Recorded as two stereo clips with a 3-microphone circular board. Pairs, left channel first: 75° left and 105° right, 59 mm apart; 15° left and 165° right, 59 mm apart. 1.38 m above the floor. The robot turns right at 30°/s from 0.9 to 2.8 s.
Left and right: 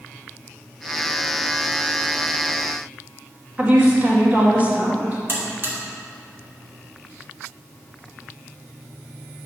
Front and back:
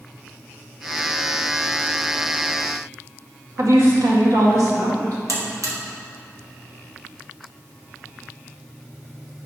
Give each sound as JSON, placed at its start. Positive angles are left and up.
{"t": 3.6, "sound": "a woman speaking", "azimuth_deg": -165, "distance_m": 1.8}
{"t": 5.3, "sound": "a buzzer", "azimuth_deg": -155, "distance_m": 1.5}